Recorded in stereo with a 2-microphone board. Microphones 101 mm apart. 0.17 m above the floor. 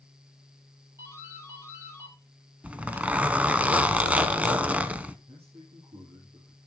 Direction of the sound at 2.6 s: 15° right (ahead or behind).